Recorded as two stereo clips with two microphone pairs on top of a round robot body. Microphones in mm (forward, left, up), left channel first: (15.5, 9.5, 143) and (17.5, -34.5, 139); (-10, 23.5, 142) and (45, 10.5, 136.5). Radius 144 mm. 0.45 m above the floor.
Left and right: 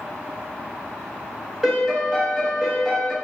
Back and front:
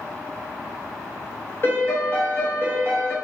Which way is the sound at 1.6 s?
160° right.